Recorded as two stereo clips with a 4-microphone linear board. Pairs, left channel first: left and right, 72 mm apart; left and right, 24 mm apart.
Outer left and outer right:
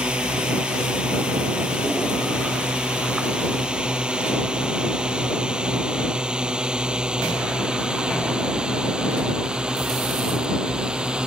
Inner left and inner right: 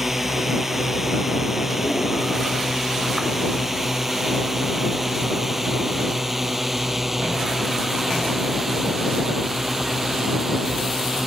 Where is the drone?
10° right (ahead or behind).